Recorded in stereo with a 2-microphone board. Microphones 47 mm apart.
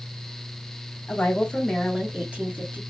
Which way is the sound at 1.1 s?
35° left (ahead or behind).